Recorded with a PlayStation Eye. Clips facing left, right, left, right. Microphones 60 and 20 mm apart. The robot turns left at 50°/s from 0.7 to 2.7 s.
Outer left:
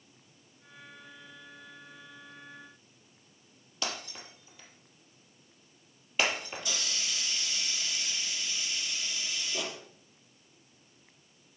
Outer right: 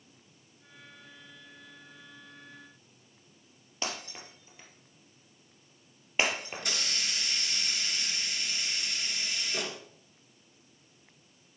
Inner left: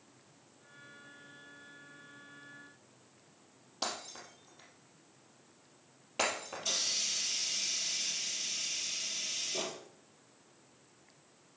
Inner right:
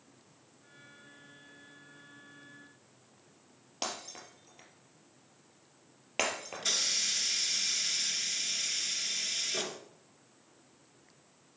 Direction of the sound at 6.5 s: 65° right (ahead or behind).